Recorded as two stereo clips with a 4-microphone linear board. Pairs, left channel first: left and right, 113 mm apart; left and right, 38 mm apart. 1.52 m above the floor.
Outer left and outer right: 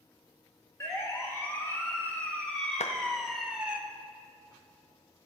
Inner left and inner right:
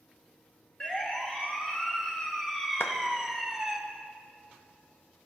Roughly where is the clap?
Left.